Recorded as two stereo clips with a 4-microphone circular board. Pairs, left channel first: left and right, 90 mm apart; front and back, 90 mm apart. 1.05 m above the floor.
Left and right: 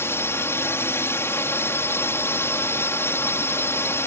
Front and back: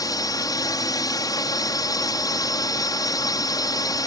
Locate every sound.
0.0 s a drone: 35° left